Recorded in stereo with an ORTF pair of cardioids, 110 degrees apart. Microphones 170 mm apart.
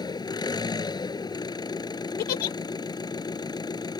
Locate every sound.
0.0 s an engine running: 25° left
2.2 s a giggle: 65° left